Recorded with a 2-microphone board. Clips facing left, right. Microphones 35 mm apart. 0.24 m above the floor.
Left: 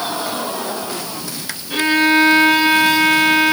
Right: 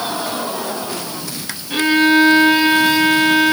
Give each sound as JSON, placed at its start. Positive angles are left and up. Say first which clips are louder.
{"t": 1.7, "sound": "a violin", "louder": "right 1 dB", "side_deg": 0, "distance_m": 3.5}